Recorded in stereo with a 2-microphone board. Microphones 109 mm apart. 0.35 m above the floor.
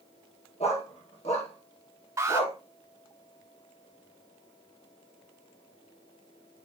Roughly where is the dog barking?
Left.